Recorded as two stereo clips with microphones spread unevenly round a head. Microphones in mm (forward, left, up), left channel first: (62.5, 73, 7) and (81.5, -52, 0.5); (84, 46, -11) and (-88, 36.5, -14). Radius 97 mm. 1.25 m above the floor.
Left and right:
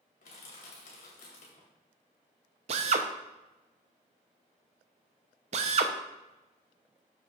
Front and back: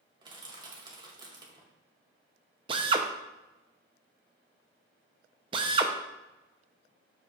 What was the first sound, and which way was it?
Crushing, 120° left.